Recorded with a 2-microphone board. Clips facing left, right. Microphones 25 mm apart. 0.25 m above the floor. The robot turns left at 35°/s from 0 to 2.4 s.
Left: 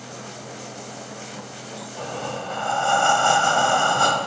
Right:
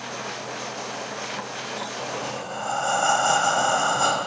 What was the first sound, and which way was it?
Breathing, 20° left (ahead or behind).